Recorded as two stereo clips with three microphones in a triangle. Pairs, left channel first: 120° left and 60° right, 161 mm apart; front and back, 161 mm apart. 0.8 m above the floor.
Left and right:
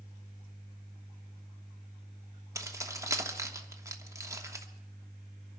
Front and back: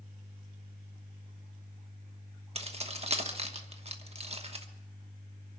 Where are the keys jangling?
130° right, 1.1 m.